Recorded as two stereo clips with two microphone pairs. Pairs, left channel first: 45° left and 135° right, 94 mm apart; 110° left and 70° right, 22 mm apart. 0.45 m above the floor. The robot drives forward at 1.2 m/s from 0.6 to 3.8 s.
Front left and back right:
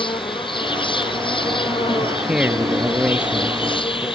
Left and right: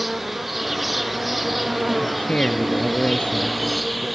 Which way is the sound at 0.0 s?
15° left.